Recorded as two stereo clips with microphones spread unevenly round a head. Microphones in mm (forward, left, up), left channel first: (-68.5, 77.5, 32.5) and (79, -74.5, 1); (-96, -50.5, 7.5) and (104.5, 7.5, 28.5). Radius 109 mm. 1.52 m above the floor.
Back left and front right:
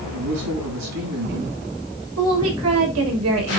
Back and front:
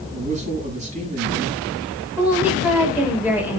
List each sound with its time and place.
0.1 s a man speaking: 40° right, 9 m
2.2 s a woman speaking: 65° right, 6 m